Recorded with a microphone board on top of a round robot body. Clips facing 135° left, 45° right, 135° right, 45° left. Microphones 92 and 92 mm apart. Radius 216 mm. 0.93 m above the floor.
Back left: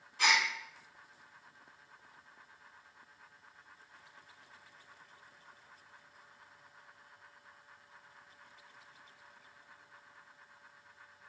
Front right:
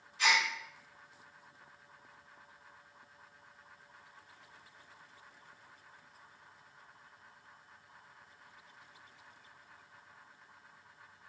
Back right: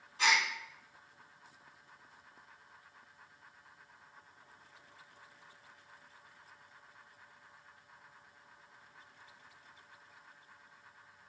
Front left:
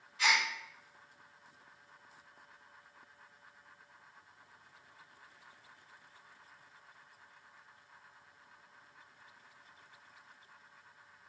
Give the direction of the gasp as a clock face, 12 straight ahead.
6 o'clock.